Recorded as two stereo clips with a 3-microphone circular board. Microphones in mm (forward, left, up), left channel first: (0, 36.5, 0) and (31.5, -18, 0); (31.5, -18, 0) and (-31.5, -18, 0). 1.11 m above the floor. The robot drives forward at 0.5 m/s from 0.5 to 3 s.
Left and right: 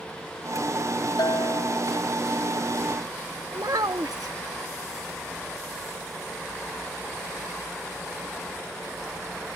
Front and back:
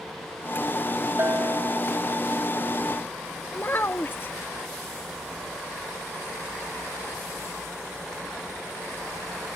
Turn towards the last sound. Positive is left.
turn(degrees=-55)